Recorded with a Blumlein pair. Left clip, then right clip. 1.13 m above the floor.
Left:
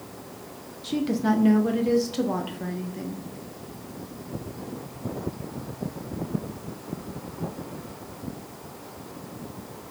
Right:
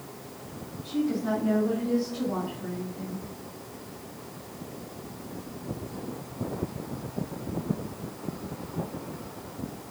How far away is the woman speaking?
About 0.6 m.